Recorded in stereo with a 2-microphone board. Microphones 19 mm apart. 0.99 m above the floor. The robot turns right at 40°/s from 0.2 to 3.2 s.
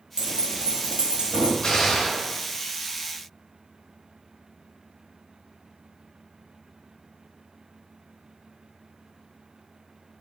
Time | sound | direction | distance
0.2 | keys jangling | 120° right | 0.9 m
1.6 | a gunshot | 50° left (ahead or behind) | 1.0 m